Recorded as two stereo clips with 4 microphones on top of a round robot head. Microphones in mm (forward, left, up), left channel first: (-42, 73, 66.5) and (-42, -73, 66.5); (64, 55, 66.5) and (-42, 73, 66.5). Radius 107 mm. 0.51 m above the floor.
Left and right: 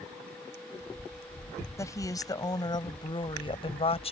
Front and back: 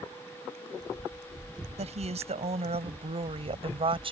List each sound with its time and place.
1.8 s a woman speaking: 160° left; by 4.1 s 135° left